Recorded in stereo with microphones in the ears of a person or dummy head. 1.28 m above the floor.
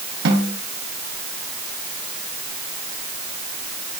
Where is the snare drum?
65° right (ahead or behind), 8.5 m.